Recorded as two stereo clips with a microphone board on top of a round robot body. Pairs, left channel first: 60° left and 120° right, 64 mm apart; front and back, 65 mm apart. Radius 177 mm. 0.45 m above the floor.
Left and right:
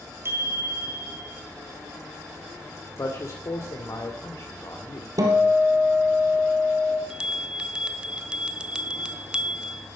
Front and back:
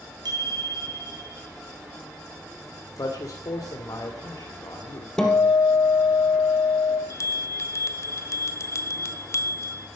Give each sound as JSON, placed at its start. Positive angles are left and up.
{"t": 0.2, "sound": "a bicycle bell", "azimuth_deg": -170, "distance_m": 3.5}
{"t": 3.0, "sound": "a man speaking", "azimuth_deg": 25, "distance_m": 2.5}
{"t": 5.2, "sound": "a guitar", "azimuth_deg": -80, "distance_m": 2.5}
{"t": 7.1, "sound": "a bell", "azimuth_deg": -45, "distance_m": 0.9}